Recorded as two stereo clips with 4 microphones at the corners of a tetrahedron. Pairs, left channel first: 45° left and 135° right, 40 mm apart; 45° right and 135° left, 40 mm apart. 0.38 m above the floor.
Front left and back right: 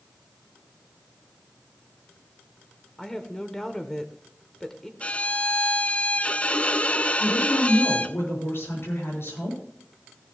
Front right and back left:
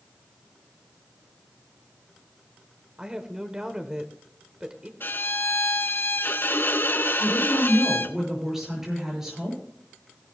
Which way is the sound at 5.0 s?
10° right.